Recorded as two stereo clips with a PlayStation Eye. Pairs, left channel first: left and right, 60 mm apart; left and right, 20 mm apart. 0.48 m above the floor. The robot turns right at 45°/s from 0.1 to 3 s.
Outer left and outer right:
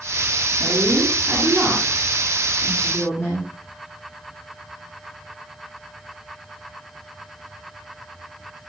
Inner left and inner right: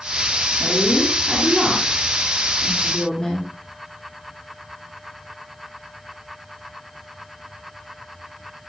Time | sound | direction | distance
0.6 | a woman speaking | 60° right | 5.5 m